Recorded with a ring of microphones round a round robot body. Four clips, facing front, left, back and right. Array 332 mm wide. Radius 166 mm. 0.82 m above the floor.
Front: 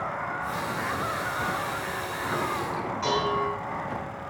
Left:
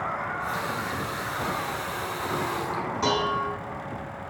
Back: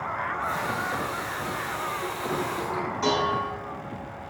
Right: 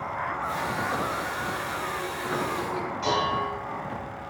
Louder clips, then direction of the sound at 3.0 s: Even, back 1 dB; 110° left.